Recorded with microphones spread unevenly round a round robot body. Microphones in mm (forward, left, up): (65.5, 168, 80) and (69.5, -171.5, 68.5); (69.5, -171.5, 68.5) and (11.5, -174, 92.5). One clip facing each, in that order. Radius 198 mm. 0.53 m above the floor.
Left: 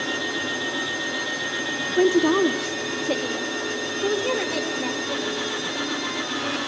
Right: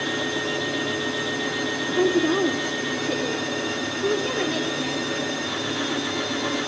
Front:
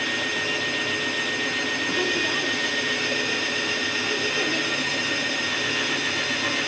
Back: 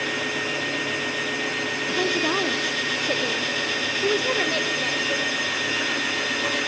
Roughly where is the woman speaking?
Behind left.